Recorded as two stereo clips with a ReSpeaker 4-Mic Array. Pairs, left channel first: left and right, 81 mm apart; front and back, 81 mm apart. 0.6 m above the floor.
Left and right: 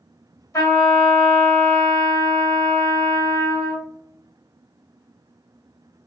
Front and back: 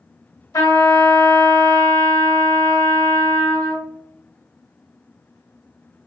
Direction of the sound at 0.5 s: 40° left.